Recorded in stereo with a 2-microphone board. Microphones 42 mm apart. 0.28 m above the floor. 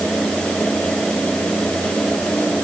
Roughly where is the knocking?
No knocking in this recording.